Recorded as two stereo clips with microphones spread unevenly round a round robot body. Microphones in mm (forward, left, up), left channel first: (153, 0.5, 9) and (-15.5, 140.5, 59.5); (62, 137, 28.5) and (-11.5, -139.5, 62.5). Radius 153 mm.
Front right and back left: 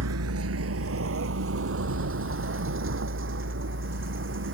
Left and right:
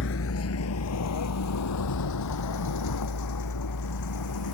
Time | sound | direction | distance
0.0 | a vehicle | 130° left | ?